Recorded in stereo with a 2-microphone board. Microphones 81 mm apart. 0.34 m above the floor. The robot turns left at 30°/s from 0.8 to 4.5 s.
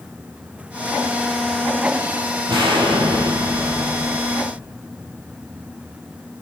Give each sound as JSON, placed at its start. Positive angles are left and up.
{"t": 2.5, "sound": "an explosion", "azimuth_deg": -75, "distance_m": 5.0}